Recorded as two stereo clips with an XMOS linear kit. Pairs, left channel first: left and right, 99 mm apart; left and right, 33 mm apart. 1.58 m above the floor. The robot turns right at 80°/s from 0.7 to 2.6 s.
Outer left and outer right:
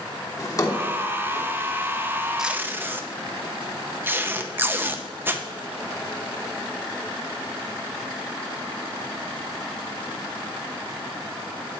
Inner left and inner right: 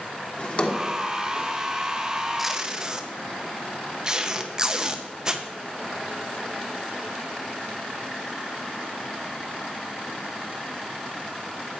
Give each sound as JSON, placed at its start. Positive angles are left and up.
{"t": 0.4, "sound": "a drawer", "side_deg": 35, "distance_m": 1.4}
{"t": 2.4, "sound": "tape being pulled", "side_deg": -5, "distance_m": 0.5}